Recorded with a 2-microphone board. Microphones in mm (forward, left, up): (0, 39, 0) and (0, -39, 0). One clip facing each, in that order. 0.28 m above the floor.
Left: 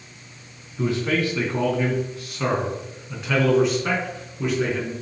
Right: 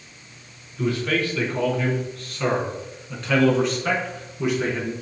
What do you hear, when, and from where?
0.8 s a man speaking: 25° left (ahead or behind), 3 m; by 4.9 s 5° right (ahead or behind), 4 m